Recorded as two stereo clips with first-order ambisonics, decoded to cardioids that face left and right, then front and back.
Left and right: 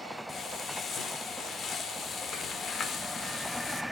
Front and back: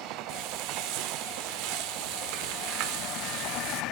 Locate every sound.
0.3 s frying: 155° left, 1.0 m